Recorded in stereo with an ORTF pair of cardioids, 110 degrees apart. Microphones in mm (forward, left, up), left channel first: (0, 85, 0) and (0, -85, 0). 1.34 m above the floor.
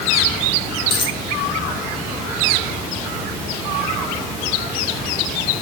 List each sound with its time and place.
0.9 s a dropped coin: 30° left, 2 m